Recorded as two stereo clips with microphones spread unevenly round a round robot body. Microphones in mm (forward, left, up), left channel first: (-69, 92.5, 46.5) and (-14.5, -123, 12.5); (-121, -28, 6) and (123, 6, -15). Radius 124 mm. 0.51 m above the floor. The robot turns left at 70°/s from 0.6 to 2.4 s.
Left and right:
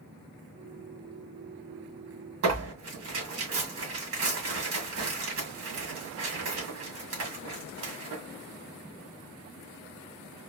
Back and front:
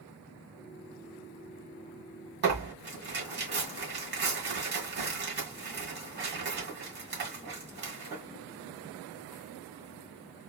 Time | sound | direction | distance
2.4 | tearing paper | 40° right | 1.9 m